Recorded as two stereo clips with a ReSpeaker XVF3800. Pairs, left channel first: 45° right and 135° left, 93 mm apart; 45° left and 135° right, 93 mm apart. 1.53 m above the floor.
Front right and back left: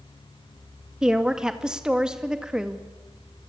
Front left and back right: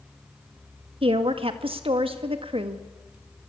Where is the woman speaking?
145° right, 1.9 m.